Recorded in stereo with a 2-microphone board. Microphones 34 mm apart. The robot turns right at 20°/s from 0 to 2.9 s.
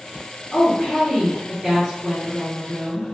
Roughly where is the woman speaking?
Behind left.